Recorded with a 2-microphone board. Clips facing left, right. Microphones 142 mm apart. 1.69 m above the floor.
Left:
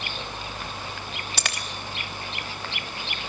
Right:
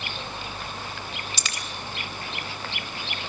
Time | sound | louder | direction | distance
1.4 | a dropped coin | left 3 dB | 60° left (ahead or behind) | 3.5 m